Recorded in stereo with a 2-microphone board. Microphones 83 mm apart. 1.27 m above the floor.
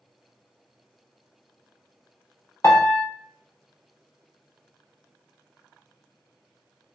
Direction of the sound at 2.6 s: 35° left (ahead or behind).